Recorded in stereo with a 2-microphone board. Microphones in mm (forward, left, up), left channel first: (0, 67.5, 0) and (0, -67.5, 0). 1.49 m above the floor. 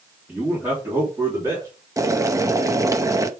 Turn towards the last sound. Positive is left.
turn(degrees=-25)  # may be behind; listen again after turning